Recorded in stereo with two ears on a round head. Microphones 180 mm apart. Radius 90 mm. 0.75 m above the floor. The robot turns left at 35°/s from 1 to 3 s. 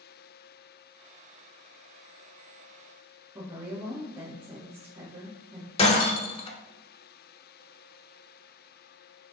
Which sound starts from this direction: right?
A woman speaking, at 3.4 s.